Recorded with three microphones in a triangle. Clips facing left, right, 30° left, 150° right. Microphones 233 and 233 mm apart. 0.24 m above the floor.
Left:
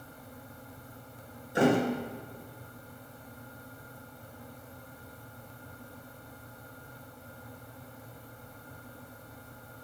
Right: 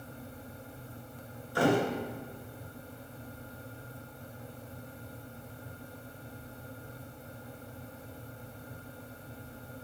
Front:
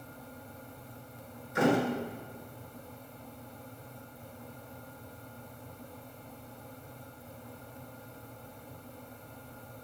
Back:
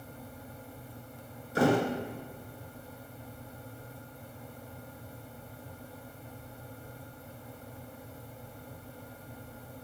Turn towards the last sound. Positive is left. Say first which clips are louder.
# left 2 dB, back 1 dB
turn(degrees=155)